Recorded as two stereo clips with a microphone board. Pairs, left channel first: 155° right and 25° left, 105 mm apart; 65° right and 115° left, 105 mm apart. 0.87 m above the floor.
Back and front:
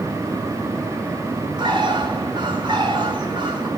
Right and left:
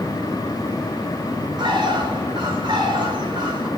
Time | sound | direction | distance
1.6 | a bird | 65° left | 5.5 m